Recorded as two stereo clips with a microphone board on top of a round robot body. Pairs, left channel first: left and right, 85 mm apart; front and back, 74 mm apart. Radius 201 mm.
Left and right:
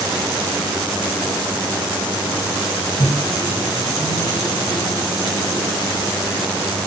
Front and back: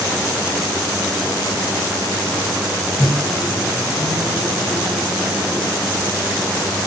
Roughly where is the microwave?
Behind left.